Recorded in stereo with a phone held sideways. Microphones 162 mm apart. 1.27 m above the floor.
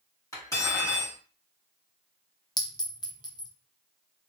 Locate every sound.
0.3 s cutlery clinking: 20° left (ahead or behind), 1.4 m
2.6 s a clink: 25° left (ahead or behind), 0.5 m